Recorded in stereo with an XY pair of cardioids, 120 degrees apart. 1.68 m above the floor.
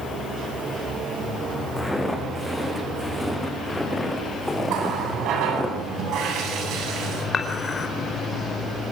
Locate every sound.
1.8 s footsteps: 10° left, 7 m
4.7 s a running tap: 70° right, 9.5 m
7.3 s dishes clattering: 35° left, 5 m